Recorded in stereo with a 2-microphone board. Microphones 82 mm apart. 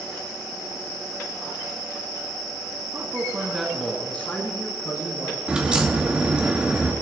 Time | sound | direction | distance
2.9 | a man speaking | 35° right (ahead or behind) | 2.5 m
5.5 | a crack | 10° right (ahead or behind) | 2.5 m